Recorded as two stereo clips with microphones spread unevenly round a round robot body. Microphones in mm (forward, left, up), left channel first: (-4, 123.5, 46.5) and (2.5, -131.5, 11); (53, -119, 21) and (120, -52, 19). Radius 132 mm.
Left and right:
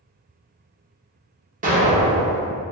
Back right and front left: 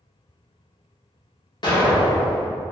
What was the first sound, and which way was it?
An explosion, 125° right.